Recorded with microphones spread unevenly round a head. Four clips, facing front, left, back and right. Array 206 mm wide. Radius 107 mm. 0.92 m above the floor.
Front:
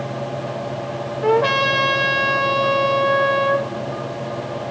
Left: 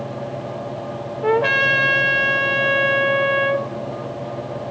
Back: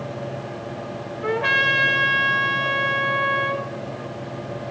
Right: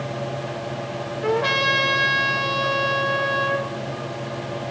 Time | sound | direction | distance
1.2 | a trumpet | 25° left | 4 m